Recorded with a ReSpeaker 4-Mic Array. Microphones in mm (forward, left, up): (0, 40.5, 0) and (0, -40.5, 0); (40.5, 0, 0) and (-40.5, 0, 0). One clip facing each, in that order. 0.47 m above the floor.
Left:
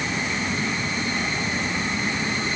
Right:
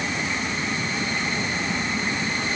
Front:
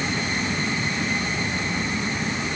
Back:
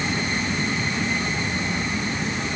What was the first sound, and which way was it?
Only background noise.